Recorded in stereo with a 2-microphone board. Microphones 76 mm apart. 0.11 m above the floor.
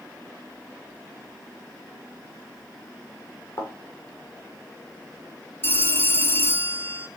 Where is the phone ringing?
30° left (ahead or behind), 1.1 m.